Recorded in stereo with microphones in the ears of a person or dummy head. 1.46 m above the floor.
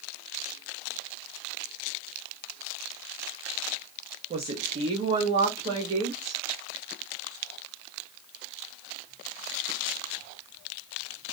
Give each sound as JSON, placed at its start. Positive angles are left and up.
{"t": 4.3, "sound": "a woman speaking", "side_deg": -30, "distance_m": 0.8}